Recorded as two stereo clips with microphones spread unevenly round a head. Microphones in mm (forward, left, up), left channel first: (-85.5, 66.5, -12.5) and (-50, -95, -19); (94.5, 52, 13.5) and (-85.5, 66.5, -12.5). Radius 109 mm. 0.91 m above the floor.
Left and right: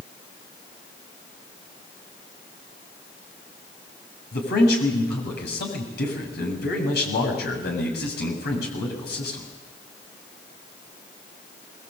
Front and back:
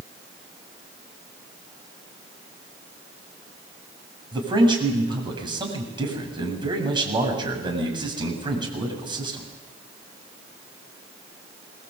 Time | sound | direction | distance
4.3 | a man speaking | 110° left | 7.5 m